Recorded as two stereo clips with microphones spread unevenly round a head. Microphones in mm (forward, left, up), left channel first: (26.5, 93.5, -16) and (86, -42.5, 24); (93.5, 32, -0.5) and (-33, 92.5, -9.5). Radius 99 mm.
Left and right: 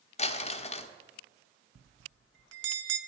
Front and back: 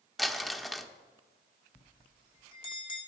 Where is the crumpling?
65° left, 0.9 m.